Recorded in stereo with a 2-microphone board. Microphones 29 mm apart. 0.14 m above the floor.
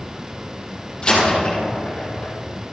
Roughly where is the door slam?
Left.